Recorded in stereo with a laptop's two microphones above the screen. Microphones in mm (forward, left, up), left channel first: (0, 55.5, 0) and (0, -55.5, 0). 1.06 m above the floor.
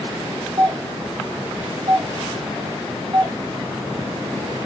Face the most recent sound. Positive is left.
turn(degrees=-45)  # may be behind; listen again after turning